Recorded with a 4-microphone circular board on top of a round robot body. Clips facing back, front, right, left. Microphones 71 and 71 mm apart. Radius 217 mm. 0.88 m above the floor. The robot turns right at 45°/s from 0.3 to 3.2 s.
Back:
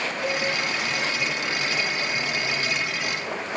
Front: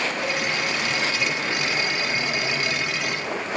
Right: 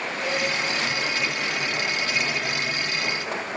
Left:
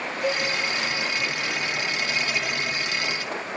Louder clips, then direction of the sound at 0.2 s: Even, left 2 dB; 80° left.